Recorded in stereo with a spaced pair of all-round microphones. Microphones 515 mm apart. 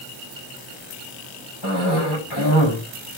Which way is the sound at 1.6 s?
55° left (ahead or behind).